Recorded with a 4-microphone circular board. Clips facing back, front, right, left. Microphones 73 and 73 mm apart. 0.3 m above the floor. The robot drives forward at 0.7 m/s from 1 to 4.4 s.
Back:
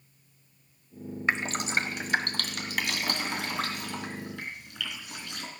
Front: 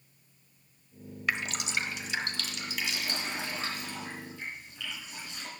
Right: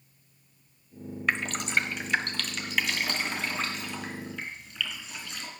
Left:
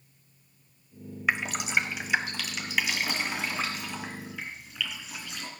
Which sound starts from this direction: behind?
Dripping, at 1.3 s.